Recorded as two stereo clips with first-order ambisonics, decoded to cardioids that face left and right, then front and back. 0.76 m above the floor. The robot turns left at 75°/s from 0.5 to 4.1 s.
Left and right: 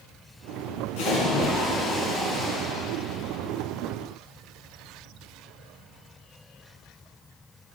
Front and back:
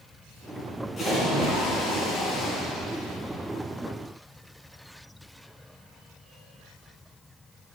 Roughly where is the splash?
Left.